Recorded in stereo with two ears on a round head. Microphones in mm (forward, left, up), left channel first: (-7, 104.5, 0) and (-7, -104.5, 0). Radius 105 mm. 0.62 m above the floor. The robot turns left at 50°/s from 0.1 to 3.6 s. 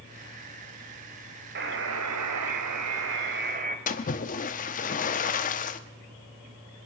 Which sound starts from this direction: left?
A splash, at 3.9 s.